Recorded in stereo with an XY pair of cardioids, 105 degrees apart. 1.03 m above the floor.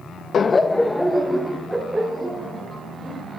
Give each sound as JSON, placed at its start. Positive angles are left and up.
{"t": 0.3, "sound": "laughter", "azimuth_deg": 45, "distance_m": 0.8}